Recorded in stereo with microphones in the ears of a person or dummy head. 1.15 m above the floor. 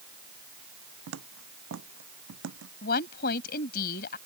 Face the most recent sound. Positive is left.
turn(degrees=55)  # may be behind; listen again after turning